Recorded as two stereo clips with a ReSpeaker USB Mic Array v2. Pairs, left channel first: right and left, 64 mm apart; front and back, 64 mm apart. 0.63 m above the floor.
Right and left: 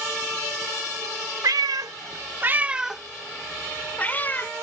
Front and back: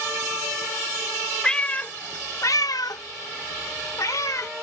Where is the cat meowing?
75° left; by 4.5 s 30° right.